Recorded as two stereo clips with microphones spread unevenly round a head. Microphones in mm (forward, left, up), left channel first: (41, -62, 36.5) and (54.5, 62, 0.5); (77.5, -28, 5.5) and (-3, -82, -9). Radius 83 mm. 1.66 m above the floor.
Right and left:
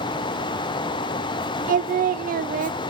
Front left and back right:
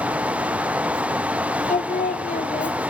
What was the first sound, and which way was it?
Singing, 75° left.